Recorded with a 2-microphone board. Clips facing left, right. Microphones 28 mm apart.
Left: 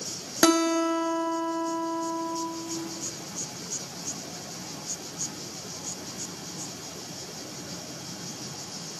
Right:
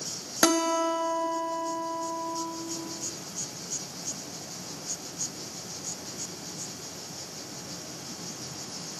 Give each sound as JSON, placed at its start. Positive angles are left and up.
{"t": 0.4, "sound": "a guitar", "side_deg": 25, "distance_m": 0.7}